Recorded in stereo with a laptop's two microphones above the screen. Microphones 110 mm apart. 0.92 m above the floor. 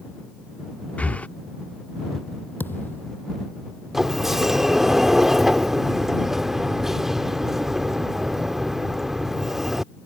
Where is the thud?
20° left (ahead or behind).